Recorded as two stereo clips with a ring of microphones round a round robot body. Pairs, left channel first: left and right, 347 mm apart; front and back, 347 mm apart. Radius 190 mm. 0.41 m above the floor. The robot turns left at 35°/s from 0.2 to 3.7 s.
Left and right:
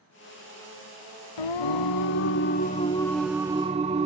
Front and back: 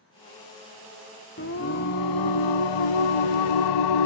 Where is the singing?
65° left, 0.5 m; by 4.1 s 15° right, 0.5 m.